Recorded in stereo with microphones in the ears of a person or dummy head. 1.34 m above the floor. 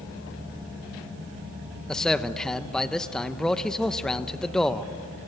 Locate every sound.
1.9 s a man speaking: centre (ahead or behind), 1.0 m